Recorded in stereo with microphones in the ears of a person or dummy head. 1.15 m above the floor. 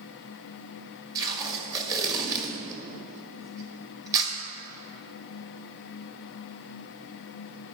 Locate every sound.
1.1 s tape being pulled: 25° right (ahead or behind), 1.5 m